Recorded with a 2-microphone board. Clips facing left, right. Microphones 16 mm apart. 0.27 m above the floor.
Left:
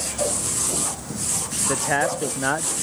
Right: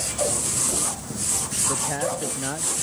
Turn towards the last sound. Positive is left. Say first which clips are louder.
# left 7 dB
turn(degrees=45)  # may be behind; listen again after turning